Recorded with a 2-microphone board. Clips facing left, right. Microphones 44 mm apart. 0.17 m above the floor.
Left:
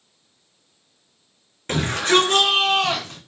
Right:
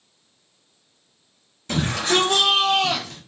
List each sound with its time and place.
1.7 s a shout: 50° left (ahead or behind), 3 m; by 3.2 s 40° left (ahead or behind), 2 m